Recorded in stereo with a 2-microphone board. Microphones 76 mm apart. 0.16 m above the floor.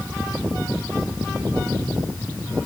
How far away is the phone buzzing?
No phone buzzing in this recording.